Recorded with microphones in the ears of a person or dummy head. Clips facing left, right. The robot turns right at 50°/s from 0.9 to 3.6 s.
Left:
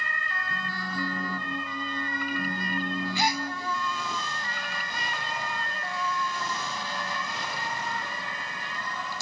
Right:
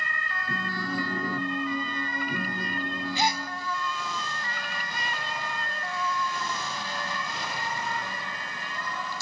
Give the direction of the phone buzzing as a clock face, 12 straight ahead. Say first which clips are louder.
Right 6 dB; 4 o'clock.